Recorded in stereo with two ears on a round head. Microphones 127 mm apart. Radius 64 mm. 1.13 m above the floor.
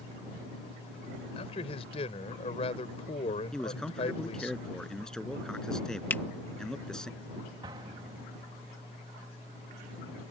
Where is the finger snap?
15° left (ahead or behind).